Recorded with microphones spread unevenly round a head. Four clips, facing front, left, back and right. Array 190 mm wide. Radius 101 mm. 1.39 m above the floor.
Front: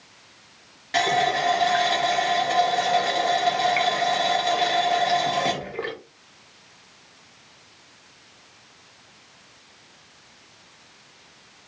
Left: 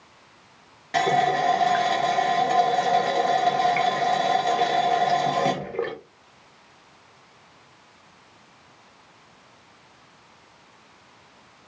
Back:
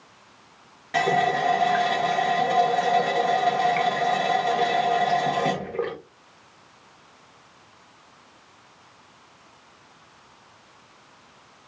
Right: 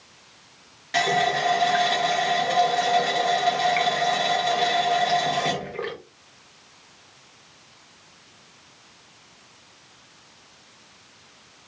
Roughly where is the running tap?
Behind left.